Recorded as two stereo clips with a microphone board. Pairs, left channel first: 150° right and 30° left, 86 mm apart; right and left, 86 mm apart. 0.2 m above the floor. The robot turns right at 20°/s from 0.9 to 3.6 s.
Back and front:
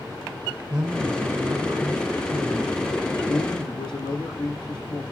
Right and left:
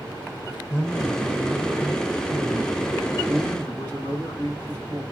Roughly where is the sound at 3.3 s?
Behind.